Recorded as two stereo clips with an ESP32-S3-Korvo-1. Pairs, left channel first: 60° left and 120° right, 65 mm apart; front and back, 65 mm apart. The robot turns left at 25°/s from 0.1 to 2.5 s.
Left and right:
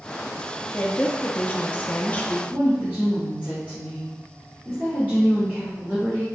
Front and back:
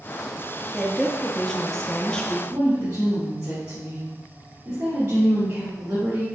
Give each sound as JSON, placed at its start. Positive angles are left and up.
{"t": 0.7, "sound": "a woman speaking", "azimuth_deg": 80, "distance_m": 0.5}
{"t": 2.5, "sound": "a woman speaking", "azimuth_deg": 175, "distance_m": 1.5}